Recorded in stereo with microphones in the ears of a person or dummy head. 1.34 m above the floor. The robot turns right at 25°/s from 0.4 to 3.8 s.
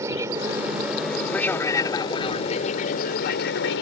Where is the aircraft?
15° right; by 3.8 s 70° left.